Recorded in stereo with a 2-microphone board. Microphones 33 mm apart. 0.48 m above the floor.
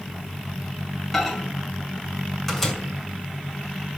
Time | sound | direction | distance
1.1 | a microwave | 10° left (ahead or behind) | 2.5 m